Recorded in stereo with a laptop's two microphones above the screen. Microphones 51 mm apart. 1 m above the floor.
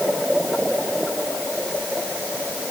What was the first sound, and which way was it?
Only background noise.